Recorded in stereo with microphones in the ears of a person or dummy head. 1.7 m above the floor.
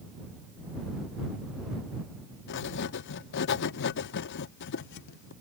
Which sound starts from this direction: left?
Writing, at 2.5 s.